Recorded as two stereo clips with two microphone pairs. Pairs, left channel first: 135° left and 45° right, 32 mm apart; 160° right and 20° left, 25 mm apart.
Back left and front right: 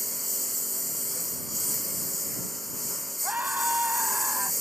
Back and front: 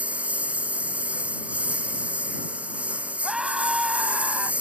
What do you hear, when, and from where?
0.0 s a lawn mower: 45° left
3.2 s a scream: 45° right